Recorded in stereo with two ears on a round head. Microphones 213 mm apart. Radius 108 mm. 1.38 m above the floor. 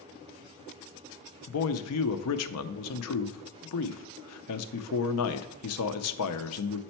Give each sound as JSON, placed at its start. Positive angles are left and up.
{"t": 1.5, "sound": "a man speaking", "side_deg": 70, "distance_m": 0.6}